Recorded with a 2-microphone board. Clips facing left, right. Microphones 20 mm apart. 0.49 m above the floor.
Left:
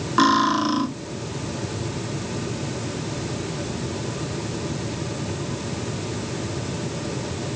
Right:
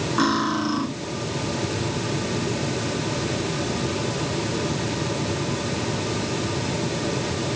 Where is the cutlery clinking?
25° left (ahead or behind), 1.2 m.